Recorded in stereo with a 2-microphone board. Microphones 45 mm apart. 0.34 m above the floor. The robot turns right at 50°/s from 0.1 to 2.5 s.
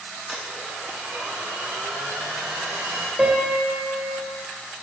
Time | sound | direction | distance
0.3 | a blender | straight behind | 1.8 m
3.2 | a piano | 20° right (ahead or behind) | 1.6 m